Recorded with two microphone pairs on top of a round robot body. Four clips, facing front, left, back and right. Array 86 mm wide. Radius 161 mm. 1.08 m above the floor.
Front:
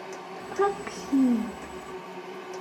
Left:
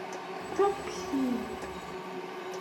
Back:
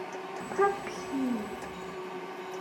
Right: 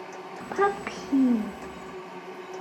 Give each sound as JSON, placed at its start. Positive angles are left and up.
{"t": 0.4, "sound": "a child speaking", "azimuth_deg": -110, "distance_m": 0.7}